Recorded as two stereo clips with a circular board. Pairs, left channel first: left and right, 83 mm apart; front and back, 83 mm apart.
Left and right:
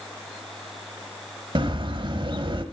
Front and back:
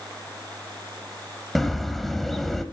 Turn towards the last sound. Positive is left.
turn(degrees=-90)